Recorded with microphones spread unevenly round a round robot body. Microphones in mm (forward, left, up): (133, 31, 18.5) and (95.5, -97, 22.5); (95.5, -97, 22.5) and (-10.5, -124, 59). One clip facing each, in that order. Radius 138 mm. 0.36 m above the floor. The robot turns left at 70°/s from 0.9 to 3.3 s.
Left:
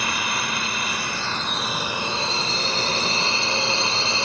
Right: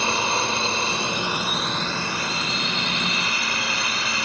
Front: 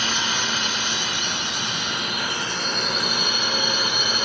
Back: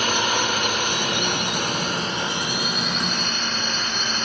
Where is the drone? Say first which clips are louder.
Right 4 dB, back 4 dB; 150° right; by 4.2 s 45° left.